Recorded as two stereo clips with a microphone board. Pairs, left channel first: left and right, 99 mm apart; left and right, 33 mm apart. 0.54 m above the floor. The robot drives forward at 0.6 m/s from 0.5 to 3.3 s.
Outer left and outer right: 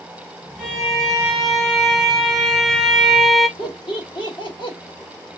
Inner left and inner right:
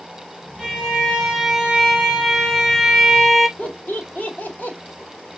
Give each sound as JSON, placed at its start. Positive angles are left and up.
{"t": 0.6, "sound": "a violin", "side_deg": 0, "distance_m": 1.9}
{"t": 3.6, "sound": "laughter", "side_deg": 50, "distance_m": 1.6}